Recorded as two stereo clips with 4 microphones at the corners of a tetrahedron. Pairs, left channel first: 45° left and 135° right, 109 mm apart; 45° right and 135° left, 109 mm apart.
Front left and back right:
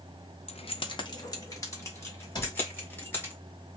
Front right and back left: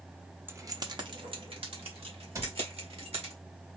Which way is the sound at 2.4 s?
85° left.